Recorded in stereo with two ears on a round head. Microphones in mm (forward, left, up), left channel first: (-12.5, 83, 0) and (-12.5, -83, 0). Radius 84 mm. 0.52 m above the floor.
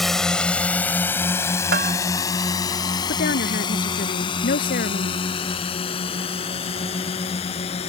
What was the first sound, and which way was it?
A drone, centre (ahead or behind).